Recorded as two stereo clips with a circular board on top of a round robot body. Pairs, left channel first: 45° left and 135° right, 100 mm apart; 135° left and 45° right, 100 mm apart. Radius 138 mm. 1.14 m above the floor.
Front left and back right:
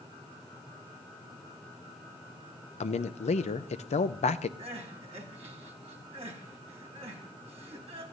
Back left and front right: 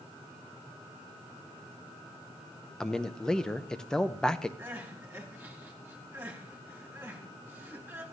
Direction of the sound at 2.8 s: 50° left.